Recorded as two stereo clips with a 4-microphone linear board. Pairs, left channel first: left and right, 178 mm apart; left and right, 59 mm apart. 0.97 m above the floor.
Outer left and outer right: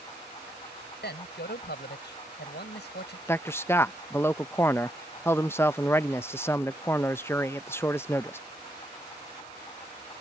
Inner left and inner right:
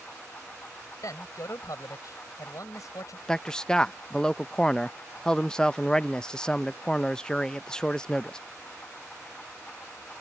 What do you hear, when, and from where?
1.0 s a man speaking: 75° left (ahead or behind)
3.3 s a man speaking: 15° left (ahead or behind)